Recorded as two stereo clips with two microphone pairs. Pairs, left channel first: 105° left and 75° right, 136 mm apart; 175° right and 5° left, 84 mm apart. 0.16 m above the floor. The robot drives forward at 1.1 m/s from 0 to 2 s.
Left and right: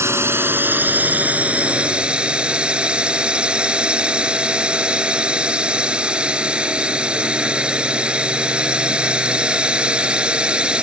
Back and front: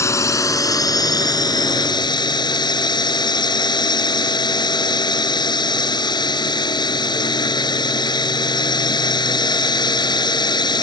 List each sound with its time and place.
0.0 s a drone: 140° right; by 10.8 s 160° right